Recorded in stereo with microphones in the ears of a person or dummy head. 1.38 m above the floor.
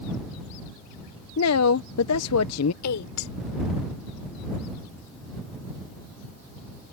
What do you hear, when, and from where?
1.4 s a woman speaking: 70° left (ahead or behind)
2.8 s a woman speaking: 85° left